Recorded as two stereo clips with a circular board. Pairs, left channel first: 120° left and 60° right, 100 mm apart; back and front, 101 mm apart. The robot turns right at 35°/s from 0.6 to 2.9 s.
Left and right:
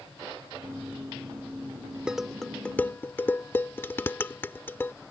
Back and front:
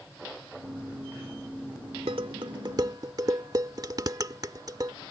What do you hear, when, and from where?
2.1 s dishes clattering: 20° left; by 4.9 s 50° left